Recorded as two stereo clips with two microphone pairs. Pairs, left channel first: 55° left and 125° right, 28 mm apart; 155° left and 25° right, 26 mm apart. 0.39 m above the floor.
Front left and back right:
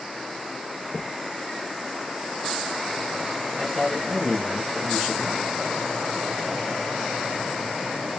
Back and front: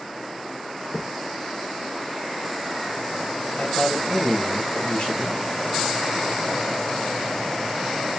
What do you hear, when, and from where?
0.9 s a thud: straight behind, 4.5 m
3.5 s a man speaking: 160° left, 4 m